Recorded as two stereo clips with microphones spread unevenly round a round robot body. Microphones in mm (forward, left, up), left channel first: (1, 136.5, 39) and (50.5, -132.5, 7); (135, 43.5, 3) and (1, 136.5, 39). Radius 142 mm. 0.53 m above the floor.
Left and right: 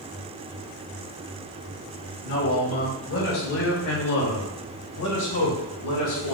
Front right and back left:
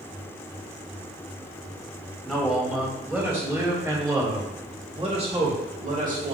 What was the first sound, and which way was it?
A man speaking, 50° left.